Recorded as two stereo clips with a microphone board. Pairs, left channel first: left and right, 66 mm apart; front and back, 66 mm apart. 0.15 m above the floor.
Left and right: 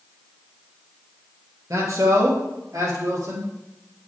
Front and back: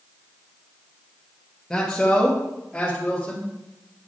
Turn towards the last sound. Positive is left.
turn(degrees=-75)